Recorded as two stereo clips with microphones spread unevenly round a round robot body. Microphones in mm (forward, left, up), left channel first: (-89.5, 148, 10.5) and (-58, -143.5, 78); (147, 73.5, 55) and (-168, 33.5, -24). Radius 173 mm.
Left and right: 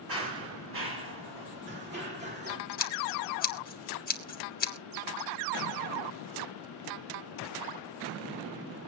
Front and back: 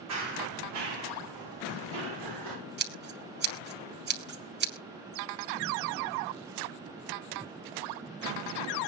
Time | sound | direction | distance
0.1 | running footsteps | 125° right | 7 m
2.8 | scissors | 145° left | 2.5 m